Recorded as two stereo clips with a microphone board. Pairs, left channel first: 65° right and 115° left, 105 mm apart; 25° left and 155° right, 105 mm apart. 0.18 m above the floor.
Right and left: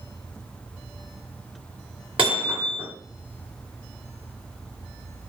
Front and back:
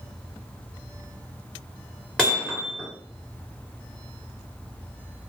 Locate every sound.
2.2 s hammering: 110° left, 1.9 m